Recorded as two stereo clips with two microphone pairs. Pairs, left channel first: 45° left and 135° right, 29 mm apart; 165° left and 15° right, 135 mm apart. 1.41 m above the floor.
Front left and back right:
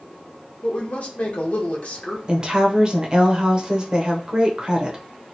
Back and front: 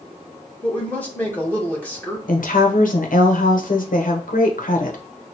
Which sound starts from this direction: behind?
A woman speaking, at 2.3 s.